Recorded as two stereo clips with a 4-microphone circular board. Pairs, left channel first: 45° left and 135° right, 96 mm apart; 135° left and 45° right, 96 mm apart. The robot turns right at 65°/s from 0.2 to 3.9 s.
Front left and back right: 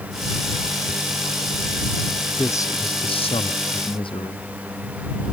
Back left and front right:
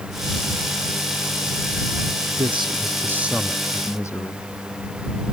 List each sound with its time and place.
2.4 s a man speaking: 25° right; by 4.5 s 75° left